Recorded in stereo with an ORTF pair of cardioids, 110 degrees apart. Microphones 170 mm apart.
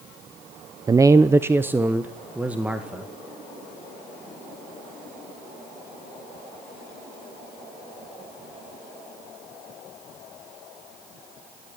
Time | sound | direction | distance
0.9 | a man speaking | 20° right | 0.7 m